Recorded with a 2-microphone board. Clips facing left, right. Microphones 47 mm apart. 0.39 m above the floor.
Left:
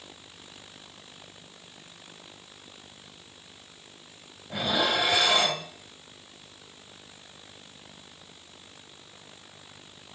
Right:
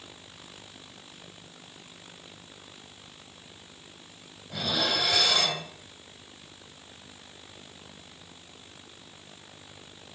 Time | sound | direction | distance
4.5 | dishes clattering | 20° left (ahead or behind) | 1.3 m